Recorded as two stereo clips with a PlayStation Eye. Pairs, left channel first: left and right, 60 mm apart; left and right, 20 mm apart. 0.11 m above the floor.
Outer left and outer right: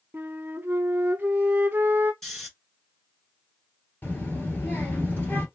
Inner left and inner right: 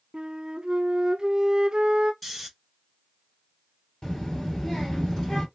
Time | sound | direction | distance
0.1 | a flute | 35° right (ahead or behind) | 0.5 m
2.2 | snoring | 5° left (ahead or behind) | 1.3 m
4.0 | a child speaking | 30° left (ahead or behind) | 1.5 m